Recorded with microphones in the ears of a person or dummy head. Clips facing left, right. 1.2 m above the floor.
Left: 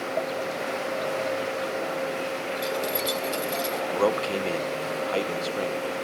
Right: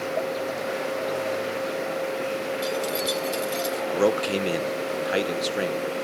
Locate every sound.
2.6 s keys jangling: centre (ahead or behind)
3.9 s a man speaking: 20° right (ahead or behind)